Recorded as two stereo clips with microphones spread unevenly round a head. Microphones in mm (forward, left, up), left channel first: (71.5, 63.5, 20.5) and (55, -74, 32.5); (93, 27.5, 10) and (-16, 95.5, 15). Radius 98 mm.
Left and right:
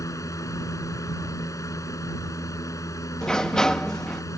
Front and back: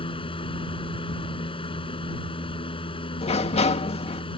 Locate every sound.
0.0 s a fan: 15° left
3.2 s a sliding door: 5° right